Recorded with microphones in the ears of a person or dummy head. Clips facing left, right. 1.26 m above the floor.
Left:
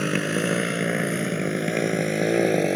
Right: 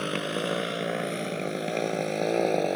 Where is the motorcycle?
30° left (ahead or behind).